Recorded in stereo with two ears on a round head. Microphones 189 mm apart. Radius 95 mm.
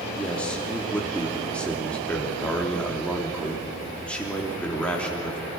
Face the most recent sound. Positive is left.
turn(degrees=5)  # may be behind; listen again after turning